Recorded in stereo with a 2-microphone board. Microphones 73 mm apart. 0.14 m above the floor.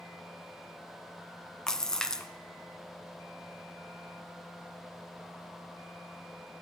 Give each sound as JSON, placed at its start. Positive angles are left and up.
{"t": 1.7, "sound": "a splash", "side_deg": 5, "distance_m": 1.5}